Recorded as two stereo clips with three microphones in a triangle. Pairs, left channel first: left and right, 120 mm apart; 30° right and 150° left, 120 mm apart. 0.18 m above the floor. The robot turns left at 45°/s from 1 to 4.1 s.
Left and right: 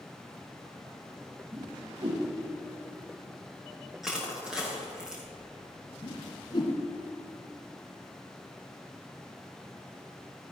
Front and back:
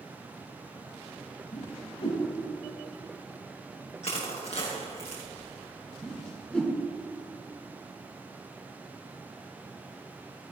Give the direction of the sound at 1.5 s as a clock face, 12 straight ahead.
1 o'clock.